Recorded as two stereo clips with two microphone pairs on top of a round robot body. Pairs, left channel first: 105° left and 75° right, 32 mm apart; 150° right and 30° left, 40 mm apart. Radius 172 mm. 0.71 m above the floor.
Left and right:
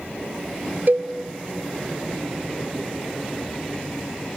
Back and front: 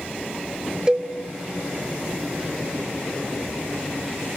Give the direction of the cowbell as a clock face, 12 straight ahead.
1 o'clock.